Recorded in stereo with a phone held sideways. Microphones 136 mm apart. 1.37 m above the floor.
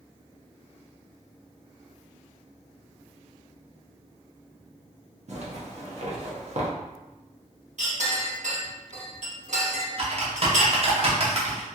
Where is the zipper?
55° right (ahead or behind), 0.8 m.